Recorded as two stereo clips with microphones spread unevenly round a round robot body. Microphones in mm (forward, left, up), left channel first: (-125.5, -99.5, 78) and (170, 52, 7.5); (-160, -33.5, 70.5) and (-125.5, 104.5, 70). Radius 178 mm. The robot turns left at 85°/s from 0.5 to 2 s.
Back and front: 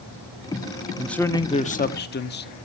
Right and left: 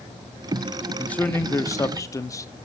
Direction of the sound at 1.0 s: 30° right.